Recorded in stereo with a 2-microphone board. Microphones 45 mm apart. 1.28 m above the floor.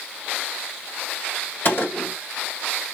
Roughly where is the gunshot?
Left.